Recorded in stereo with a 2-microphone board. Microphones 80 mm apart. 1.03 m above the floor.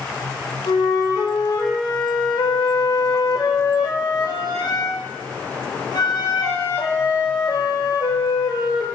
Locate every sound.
0.7 s a flute: 60° left (ahead or behind), 0.6 m